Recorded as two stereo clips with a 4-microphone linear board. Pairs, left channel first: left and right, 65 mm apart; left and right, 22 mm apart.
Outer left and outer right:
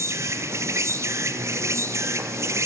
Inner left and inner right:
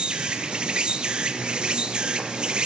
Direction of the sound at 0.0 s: 45° right (ahead or behind).